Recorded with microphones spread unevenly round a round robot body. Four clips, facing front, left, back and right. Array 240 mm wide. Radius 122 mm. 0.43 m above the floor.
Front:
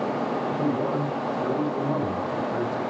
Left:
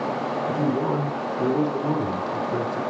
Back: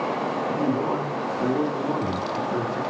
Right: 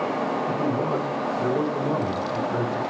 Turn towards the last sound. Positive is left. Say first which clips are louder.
# left 1 dB, back 3 dB
turn(degrees=105)